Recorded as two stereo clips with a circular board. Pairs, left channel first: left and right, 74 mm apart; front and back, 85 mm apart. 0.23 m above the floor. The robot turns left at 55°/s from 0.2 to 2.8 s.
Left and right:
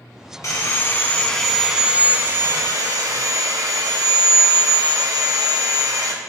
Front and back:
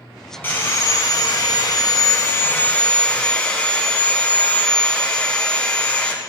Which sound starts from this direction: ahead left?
Sawing, at 0.4 s.